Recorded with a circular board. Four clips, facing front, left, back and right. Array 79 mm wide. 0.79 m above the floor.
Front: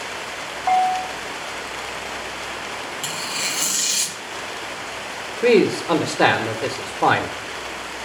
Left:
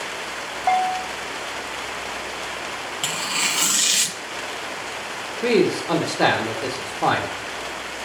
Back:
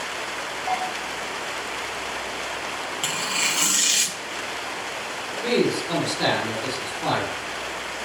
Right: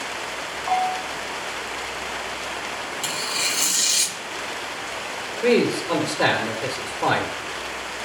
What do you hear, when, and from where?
0.7 s a bell: 65° left, 1.9 m
3.0 s tearing paper: 115° left, 0.8 m
5.4 s a man speaking: 15° left, 1.7 m